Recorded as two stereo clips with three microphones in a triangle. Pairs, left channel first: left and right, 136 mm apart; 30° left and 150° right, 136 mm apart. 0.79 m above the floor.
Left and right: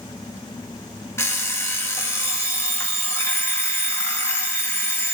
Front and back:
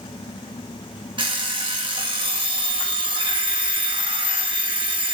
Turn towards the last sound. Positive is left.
turn(degrees=160)